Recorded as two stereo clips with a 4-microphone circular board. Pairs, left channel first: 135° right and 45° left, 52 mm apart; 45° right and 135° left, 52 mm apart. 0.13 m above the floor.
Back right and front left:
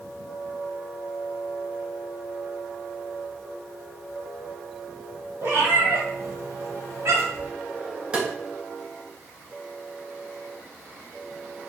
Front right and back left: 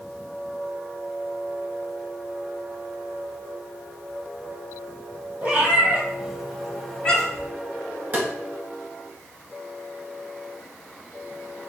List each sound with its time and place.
5.4 s a cat meowing: 80° left, 1.6 m; by 7.5 s 20° left, 1.5 m
8.1 s tapping: 100° left, 1.3 m